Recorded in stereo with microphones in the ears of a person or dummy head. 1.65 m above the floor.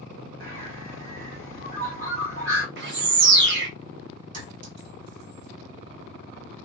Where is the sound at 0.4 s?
70° right (ahead or behind), 1.7 m.